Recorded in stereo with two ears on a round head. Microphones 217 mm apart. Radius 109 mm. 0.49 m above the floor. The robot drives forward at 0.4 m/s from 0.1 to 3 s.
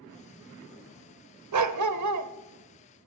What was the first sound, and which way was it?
A dog barking, 75° right (ahead or behind).